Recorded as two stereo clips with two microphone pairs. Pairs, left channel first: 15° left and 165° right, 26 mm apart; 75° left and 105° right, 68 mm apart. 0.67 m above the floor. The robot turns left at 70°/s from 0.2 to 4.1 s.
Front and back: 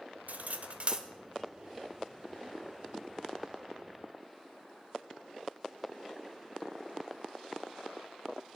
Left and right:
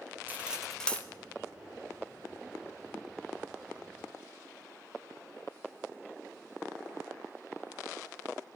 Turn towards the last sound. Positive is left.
turn(degrees=-70)